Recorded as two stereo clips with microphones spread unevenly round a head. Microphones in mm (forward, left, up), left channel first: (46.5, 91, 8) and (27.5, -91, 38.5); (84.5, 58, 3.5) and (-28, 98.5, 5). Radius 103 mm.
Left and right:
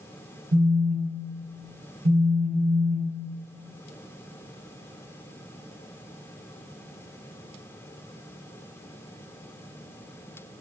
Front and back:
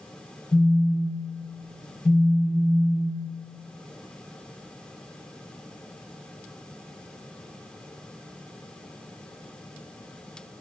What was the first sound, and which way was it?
A phone buzzing, 130° right.